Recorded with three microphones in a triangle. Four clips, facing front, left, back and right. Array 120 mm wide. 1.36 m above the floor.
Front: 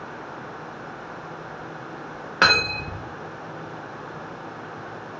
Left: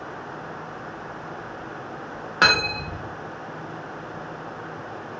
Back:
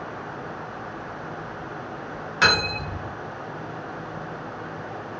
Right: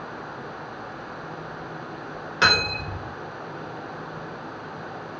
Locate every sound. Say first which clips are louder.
2.4 s cutlery clinking: left 1 dB, front 1 dB; 35° left, 0.7 m